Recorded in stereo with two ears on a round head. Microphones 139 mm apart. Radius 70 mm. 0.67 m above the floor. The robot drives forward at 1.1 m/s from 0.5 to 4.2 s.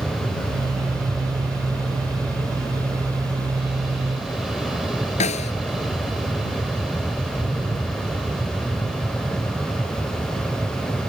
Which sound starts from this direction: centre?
An aircraft, at 0.0 s.